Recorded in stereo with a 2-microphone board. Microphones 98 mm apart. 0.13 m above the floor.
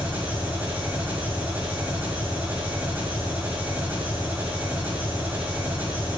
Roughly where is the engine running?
Right.